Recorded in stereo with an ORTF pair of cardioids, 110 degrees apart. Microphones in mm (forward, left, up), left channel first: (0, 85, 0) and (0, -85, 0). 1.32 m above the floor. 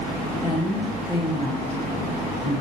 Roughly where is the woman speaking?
Ahead left.